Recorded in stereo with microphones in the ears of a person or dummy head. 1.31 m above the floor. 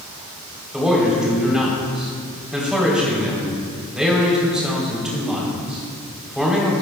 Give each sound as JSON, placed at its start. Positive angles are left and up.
{"t": 0.7, "sound": "a man speaking", "side_deg": 0, "distance_m": 4.0}